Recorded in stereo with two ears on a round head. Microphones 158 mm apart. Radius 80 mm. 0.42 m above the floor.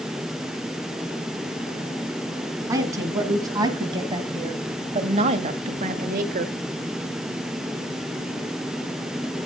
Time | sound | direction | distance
2.7 | a woman speaking | 20° right (ahead or behind) | 3 m